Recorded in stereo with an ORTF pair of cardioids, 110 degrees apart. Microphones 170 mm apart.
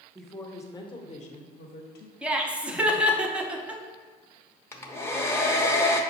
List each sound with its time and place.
0.1 s a woman speaking: 5° right, 0.9 m; by 2.1 s 70° left, 1.2 m
2.2 s laughter: 10° right, 0.8 m
4.7 s a hair dryer: 15° left, 0.6 m